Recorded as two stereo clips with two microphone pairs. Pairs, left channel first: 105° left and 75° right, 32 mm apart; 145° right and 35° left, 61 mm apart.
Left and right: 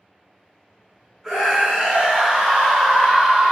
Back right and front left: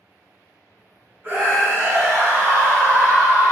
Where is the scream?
10° left, 1.8 m.